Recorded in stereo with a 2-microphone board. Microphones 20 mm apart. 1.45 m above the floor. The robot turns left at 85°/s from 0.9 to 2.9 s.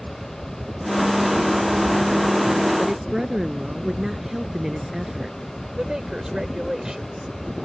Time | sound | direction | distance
2.8 | a woman speaking | 10° right (ahead or behind) | ?
5.7 | a woman speaking | 30° right (ahead or behind) | ?